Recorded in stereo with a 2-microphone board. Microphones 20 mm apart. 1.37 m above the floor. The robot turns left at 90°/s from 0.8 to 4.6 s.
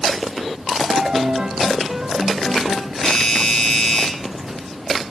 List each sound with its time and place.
0.9 s a piano: 60° right, 1.1 m; by 2.9 s 115° left, 1.1 m
3.0 s a doorbell: 150° left, 5 m; by 4.1 s 55° left, 5 m